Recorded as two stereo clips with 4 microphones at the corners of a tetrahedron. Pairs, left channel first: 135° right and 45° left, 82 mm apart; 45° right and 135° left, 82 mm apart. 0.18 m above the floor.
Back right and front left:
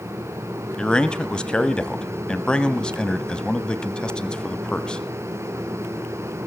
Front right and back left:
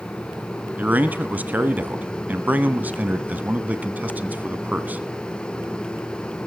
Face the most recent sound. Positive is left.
turn(degrees=160)